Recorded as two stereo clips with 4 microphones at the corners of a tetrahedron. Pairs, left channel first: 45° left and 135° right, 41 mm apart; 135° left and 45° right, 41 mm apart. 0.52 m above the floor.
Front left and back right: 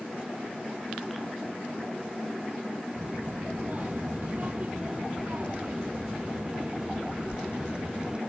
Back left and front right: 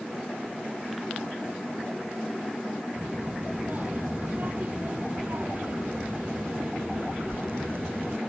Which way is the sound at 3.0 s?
90° right.